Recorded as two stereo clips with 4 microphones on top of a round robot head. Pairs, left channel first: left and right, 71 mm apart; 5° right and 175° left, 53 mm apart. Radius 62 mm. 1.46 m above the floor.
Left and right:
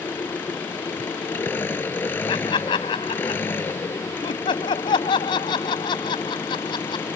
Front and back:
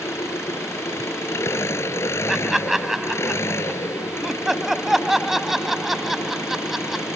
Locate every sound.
0.0 s an engine running: 25° left
2.3 s laughter: 90° left